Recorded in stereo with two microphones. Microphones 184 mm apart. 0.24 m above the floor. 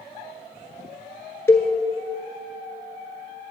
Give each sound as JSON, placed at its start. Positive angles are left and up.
{"t": 1.5, "sound": "a cowbell", "side_deg": 15, "distance_m": 0.8}